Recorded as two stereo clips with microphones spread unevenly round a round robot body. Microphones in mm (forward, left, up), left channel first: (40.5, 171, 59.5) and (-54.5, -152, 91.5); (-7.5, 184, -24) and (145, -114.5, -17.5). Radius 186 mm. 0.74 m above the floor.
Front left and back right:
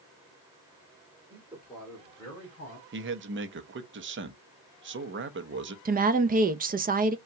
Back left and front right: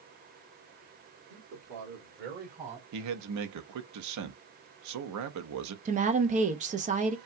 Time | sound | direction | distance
1.3 | a man speaking | 25° right | 2.5 m
2.9 | a man speaking | 55° right | 0.9 m
5.8 | a woman speaking | 80° right | 0.6 m